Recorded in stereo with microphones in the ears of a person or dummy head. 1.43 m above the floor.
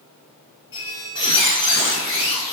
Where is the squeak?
20° left (ahead or behind), 0.6 m.